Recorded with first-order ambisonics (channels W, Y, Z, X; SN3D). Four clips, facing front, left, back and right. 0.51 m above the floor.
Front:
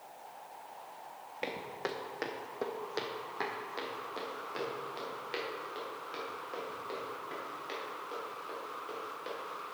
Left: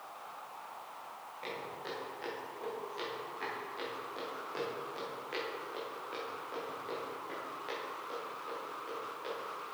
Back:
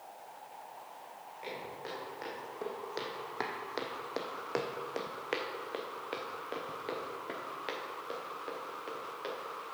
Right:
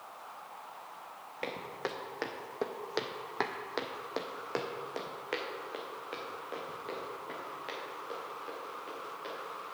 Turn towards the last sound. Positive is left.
turn(degrees=-175)